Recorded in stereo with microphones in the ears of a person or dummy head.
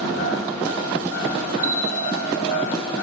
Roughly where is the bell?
Right.